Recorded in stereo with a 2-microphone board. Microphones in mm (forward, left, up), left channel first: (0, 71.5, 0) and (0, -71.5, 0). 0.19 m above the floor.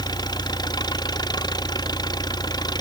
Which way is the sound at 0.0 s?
30° left (ahead or behind).